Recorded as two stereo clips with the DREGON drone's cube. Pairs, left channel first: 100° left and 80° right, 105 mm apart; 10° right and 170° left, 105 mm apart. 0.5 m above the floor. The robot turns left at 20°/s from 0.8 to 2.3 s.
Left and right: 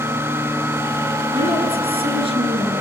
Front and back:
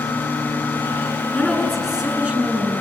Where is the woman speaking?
90° right, 7.5 m; by 2.8 s 110° right, 7.5 m.